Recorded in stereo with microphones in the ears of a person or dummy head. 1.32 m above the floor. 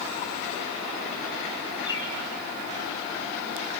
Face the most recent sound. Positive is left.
turn(degrees=20)  # may be behind; listen again after turning